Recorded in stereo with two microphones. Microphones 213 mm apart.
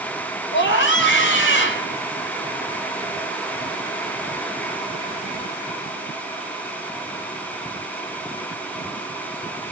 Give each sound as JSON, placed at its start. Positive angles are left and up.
{"t": 0.5, "sound": "a scream", "side_deg": 60, "distance_m": 3.5}